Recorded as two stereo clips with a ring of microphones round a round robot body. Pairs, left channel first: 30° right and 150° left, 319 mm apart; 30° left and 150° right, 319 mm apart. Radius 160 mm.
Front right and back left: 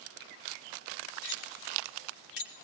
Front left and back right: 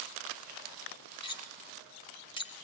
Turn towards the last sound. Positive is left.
turn(degrees=-45)